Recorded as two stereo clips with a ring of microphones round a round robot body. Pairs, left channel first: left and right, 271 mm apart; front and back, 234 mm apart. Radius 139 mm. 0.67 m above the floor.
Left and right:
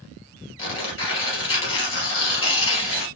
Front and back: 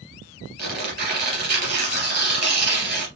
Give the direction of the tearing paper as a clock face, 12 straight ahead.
7 o'clock.